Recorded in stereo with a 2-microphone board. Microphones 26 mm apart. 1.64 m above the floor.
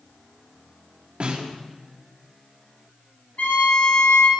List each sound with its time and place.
1.2 s a snare drum: 45° right (ahead or behind), 2.5 m
3.4 s a violin: 75° left (ahead or behind), 4 m